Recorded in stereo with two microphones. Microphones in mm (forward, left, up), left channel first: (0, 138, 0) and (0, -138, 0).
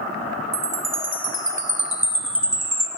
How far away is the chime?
About 1.7 m.